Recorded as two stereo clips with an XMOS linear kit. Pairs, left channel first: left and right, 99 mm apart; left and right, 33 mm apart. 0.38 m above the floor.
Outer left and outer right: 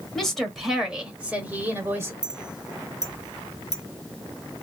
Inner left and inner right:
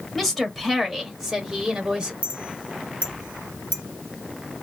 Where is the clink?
40° right (ahead or behind), 0.9 m.